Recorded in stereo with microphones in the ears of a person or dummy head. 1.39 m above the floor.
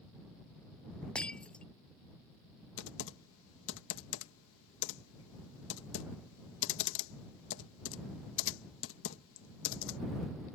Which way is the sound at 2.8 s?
70° left (ahead or behind).